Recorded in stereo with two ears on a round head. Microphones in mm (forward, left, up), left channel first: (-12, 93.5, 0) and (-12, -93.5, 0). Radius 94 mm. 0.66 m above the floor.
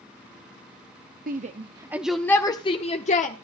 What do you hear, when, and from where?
1.3 s a shout: 40° right (ahead or behind), 0.8 m; by 3.4 s 40° left (ahead or behind), 1.2 m